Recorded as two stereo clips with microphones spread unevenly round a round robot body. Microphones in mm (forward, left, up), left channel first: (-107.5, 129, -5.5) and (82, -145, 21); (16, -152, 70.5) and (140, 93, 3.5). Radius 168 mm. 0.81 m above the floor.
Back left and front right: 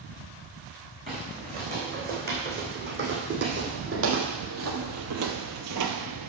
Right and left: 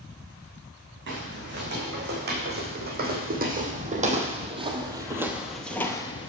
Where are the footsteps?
10° left, 3.5 m; by 6.3 s 70° right, 1.1 m.